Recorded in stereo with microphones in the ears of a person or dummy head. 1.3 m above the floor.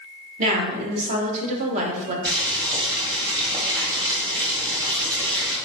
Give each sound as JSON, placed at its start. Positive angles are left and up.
{"t": 0.4, "sound": "a woman speaking", "side_deg": -35, "distance_m": 0.8}
{"t": 2.2, "sound": "boiling", "side_deg": -20, "distance_m": 1.4}